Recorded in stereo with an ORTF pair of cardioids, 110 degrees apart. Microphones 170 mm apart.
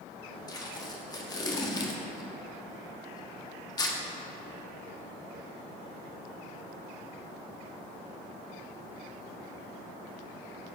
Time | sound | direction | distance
0.5 | tape being pulled | 20° left | 1.4 m